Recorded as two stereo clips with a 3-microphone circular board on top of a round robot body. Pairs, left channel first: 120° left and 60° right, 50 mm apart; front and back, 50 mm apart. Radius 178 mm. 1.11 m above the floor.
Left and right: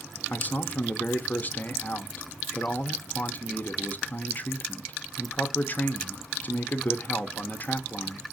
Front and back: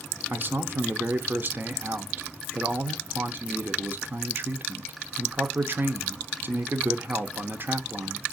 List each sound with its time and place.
0.3 s a man speaking: 160° left, 0.9 m